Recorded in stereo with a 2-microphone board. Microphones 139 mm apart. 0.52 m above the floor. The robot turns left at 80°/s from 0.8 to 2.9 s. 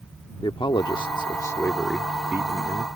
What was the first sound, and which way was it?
A man speaking, 100° left.